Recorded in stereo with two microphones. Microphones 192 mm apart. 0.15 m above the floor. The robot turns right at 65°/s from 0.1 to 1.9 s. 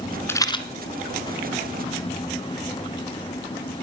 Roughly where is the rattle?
Centre.